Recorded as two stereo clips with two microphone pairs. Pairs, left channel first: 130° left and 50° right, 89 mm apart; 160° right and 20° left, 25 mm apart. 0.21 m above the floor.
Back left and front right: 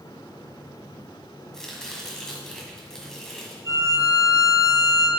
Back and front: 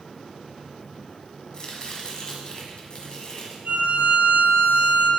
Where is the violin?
Straight ahead, 2.5 m.